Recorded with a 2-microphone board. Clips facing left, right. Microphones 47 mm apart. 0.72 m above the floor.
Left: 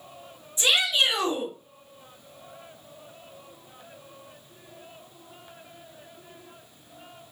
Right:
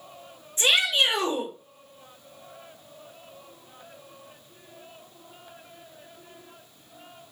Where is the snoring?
I don't hear snoring.